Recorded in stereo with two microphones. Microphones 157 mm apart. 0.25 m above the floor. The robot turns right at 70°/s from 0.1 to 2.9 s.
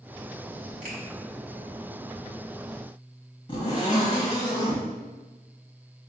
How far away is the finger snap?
About 1.5 m.